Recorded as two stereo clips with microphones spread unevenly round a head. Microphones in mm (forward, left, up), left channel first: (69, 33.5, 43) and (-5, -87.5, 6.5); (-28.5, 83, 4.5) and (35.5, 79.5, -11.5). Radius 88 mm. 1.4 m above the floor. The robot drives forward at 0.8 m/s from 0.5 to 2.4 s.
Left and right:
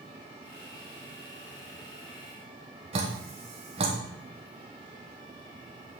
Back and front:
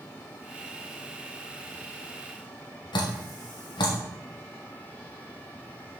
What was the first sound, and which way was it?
Dripping, 170° right.